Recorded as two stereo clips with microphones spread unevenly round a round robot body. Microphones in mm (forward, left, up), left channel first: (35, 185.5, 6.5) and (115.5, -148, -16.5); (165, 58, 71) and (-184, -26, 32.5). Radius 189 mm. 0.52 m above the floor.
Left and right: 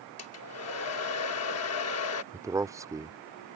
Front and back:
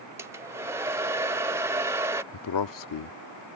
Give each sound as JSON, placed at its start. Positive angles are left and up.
{"t": 0.2, "sound": "a hair dryer", "azimuth_deg": 120}
{"t": 2.3, "sound": "a man speaking", "azimuth_deg": 0}